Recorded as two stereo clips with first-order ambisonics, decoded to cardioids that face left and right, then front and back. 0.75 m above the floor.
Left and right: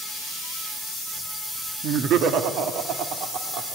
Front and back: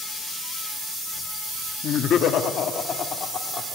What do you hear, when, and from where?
1.8 s laughter: 45° right, 1.6 m; by 3.8 s 60° right, 2.5 m